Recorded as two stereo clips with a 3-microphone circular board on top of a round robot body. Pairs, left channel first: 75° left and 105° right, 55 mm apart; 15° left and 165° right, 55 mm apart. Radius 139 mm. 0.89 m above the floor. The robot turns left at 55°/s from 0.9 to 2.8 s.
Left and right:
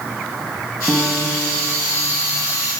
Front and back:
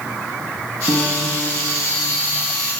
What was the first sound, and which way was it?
A piano, 5° right.